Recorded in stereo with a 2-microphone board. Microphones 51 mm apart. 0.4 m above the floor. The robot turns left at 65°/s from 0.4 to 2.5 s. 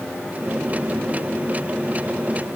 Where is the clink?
No clink in this recording.